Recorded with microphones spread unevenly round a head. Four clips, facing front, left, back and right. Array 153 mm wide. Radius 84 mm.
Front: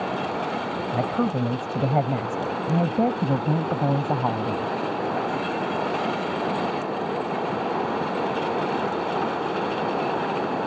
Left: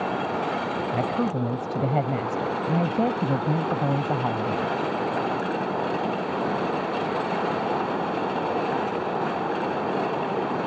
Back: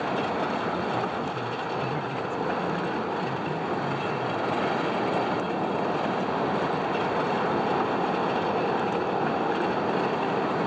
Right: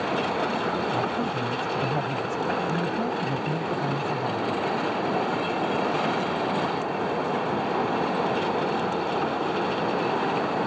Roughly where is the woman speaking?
Ahead left.